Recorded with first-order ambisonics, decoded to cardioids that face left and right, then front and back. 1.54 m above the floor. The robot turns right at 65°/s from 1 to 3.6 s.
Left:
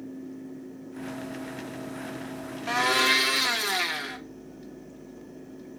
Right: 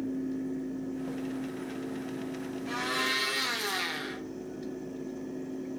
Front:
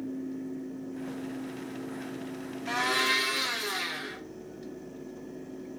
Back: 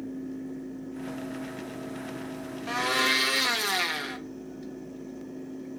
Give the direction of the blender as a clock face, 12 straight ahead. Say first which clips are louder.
Left 8 dB, back 1 dB; 9 o'clock.